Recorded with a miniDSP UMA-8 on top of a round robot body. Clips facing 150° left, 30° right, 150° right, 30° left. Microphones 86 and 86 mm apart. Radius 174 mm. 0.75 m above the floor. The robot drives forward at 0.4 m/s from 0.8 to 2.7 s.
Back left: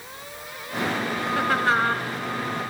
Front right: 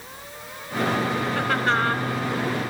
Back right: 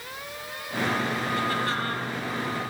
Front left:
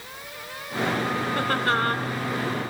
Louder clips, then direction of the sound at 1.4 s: Back left 3 dB, front left 5 dB; 65° left.